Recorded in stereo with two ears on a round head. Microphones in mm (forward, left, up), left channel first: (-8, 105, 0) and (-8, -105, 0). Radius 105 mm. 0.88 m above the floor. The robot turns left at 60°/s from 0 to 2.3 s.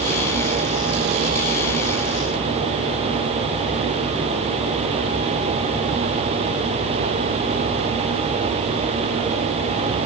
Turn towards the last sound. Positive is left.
No sound to turn to.